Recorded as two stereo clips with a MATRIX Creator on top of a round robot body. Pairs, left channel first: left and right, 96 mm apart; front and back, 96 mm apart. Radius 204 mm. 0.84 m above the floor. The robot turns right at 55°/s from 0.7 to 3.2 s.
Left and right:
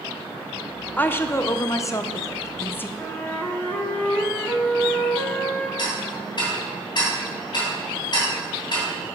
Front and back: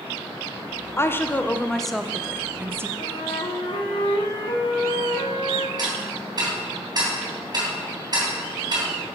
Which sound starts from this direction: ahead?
A flute, at 3.0 s.